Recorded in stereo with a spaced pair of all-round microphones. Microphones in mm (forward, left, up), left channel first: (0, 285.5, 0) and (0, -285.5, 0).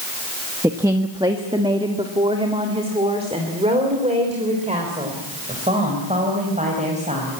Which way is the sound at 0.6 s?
5° right (ahead or behind).